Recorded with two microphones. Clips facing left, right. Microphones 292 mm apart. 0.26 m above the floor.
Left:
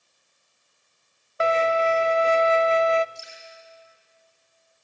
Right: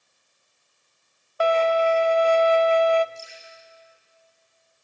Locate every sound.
1.4 s a violin: 25° left (ahead or behind), 0.5 m
3.1 s dripping: 80° left, 8.5 m